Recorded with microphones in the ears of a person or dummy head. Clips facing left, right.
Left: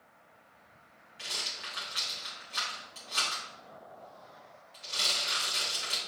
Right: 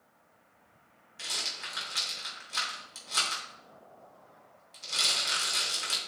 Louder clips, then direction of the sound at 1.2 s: Right 1 dB; 50° right (ahead or behind).